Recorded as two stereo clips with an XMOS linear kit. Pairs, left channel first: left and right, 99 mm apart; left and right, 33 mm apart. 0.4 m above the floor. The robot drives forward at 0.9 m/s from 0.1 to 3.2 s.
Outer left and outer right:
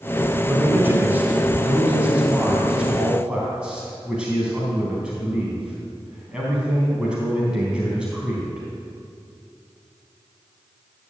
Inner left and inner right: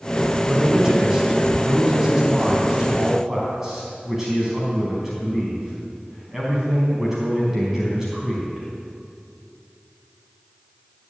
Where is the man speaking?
20° right (ahead or behind), 1.8 m; by 8.7 s 10° right (ahead or behind), 4 m.